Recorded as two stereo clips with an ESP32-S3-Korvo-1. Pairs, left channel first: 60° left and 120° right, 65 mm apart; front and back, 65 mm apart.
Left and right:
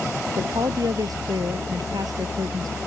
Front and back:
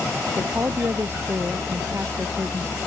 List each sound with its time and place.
0.4 s a woman speaking: 130° right